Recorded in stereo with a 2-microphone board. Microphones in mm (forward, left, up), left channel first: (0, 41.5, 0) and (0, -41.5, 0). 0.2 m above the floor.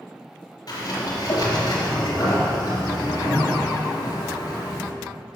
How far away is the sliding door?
About 3 m.